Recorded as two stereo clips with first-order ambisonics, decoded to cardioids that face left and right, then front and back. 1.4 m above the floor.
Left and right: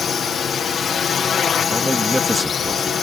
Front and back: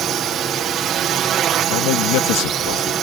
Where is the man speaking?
5° right.